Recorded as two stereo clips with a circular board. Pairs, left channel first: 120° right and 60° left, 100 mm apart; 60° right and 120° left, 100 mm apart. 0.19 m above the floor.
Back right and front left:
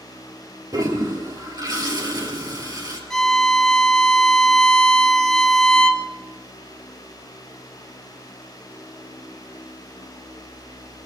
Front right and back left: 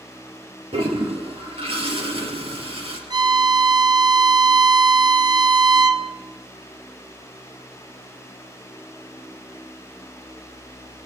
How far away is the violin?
About 1.6 m.